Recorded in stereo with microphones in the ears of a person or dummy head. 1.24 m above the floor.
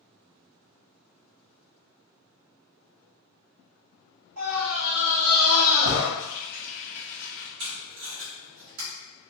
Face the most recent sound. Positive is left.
turn(degrees=-65)  # may be behind; listen again after turning